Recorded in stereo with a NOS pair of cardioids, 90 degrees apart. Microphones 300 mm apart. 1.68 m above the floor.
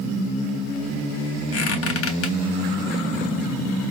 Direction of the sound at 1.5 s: 50° left.